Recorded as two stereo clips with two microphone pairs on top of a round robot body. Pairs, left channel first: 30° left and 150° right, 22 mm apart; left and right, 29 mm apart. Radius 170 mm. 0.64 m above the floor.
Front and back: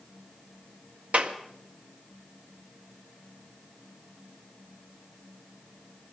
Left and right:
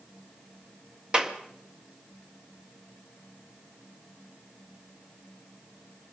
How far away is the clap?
About 1.6 m.